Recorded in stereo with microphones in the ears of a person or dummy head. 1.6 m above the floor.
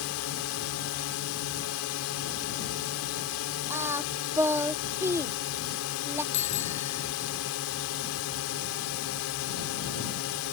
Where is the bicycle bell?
30° left (ahead or behind).